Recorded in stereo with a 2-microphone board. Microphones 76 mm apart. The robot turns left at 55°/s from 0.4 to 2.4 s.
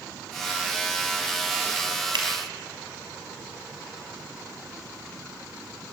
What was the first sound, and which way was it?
A finger snap, 80° right.